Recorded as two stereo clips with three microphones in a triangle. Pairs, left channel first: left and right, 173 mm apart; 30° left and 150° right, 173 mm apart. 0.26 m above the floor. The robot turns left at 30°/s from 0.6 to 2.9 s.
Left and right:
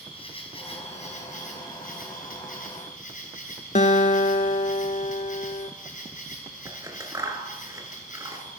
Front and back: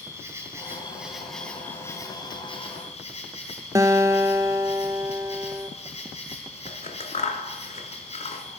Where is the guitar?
140° left, 0.6 m.